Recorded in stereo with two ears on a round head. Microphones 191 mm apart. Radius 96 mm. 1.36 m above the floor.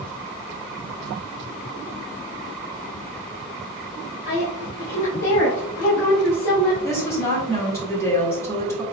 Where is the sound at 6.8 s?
15° left (ahead or behind), 1.9 m.